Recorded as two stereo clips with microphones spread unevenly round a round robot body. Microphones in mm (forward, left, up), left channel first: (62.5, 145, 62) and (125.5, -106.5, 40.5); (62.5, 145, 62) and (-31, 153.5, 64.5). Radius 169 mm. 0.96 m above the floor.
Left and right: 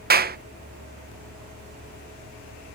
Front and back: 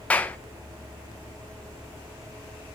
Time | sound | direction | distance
0.1 | a clap | 70° right | 0.6 m